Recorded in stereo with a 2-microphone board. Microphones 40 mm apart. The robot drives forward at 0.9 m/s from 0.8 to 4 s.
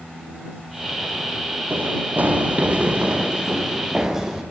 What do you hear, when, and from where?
1.7 s running footsteps: 50° right (ahead or behind), 4.5 m; by 4.4 s 10° right (ahead or behind), 6 m